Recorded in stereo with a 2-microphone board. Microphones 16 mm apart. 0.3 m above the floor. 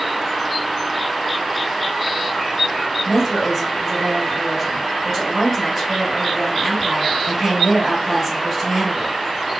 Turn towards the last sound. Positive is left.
turn(degrees=-10)  # may be behind; listen again after turning